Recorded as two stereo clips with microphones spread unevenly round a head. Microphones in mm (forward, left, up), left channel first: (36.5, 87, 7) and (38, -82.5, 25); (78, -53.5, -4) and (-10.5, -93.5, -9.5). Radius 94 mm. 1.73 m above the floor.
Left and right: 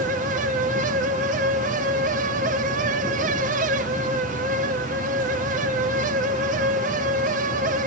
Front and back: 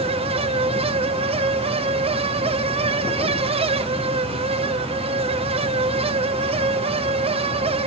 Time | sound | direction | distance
0.0 | a fan | 140° right | 1.2 m